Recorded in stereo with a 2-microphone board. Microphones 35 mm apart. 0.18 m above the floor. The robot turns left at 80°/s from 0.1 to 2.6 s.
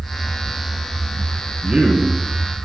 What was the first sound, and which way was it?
A man speaking, 125° right.